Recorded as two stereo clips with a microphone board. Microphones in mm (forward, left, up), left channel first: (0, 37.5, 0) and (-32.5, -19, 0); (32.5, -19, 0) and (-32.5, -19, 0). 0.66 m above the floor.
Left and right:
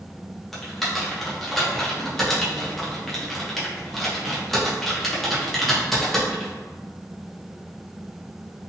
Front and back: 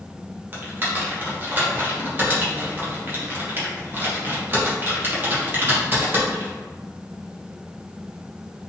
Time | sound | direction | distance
0.5 | typing on a keyboard | 145° left | 0.7 m